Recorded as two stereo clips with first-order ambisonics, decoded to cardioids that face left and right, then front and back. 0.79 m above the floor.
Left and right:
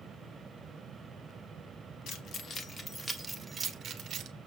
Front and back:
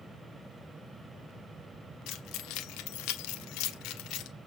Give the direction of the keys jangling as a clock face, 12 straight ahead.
11 o'clock.